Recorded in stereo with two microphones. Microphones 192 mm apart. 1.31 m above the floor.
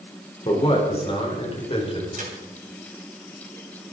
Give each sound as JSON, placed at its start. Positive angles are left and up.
{"t": 0.5, "sound": "a man speaking", "side_deg": 30, "distance_m": 4.0}
{"t": 2.1, "sound": "a crack", "side_deg": -45, "distance_m": 3.5}